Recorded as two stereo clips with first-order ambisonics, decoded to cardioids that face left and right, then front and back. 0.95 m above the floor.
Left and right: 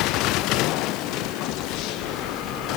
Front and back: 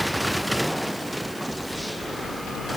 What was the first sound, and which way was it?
Only background noise.